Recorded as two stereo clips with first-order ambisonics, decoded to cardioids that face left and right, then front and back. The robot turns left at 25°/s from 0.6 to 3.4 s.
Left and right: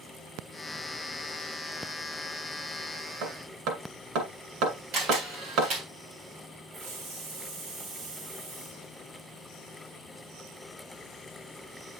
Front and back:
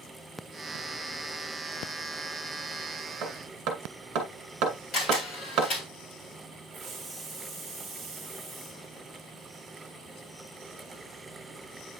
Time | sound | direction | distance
3.2 | hammering | 125° right | 2.0 m
4.9 | a camera shutter | 55° right | 3 m
6.7 | a hiss | 105° right | 2 m